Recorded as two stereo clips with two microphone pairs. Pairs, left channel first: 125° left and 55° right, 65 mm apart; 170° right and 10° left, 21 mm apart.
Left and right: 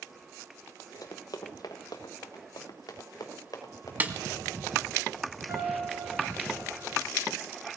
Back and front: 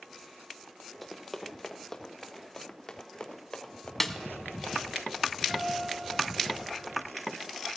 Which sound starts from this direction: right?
A snare drum, at 4.0 s.